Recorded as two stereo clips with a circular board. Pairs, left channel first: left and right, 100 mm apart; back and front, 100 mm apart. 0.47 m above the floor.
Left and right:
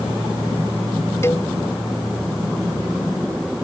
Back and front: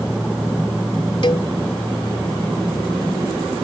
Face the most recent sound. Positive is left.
turn(degrees=150)